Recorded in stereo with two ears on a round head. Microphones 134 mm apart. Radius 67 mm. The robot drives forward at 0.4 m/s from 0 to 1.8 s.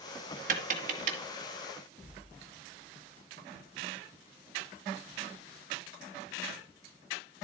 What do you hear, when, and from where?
0.5 s tapping: 60° right (ahead or behind), 1.9 m; by 1.2 s 55° right (ahead or behind), 2 m